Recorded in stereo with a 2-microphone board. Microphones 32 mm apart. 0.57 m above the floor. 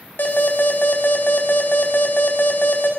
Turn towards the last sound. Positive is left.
turn(degrees=70)  # may be behind; listen again after turning